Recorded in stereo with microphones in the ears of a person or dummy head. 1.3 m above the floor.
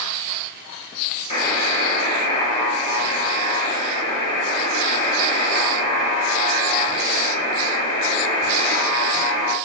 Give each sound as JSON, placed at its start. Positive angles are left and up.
{"t": 1.3, "sound": "a buzzer", "side_deg": 45, "distance_m": 1.1}